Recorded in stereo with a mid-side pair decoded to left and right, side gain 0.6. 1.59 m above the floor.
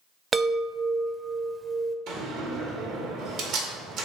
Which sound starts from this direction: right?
A door slam, at 2.1 s.